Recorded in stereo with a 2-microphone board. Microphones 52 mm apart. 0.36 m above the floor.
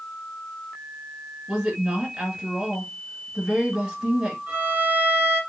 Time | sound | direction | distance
1.5 | a woman speaking | 20° right (ahead or behind) | 2.0 m
4.5 | a violin | 35° right (ahead or behind) | 3 m